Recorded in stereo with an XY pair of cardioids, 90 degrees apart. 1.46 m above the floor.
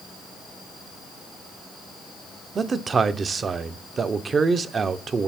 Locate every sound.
2.5 s a man speaking: 45° right, 0.6 m